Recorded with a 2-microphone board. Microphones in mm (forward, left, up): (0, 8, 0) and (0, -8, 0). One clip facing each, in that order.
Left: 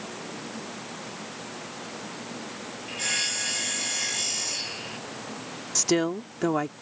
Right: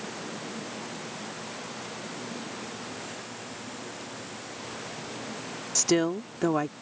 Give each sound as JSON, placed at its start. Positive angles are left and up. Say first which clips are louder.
{"t": 2.9, "sound": "sawing", "louder": "left 11 dB", "side_deg": 85}
{"t": 5.8, "sound": "a woman speaking", "louder": "even", "side_deg": 5}